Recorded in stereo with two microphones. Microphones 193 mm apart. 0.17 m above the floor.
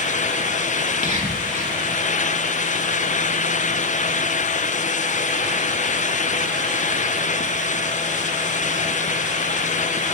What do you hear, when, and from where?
0.8 s whispering: 40° right (ahead or behind), 2 m